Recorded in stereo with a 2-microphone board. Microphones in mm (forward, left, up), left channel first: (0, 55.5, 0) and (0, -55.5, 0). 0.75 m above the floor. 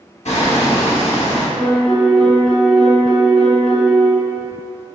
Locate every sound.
0.2 s hammering: 85° left, 0.9 m
1.6 s a piano: 5° right (ahead or behind), 1.3 m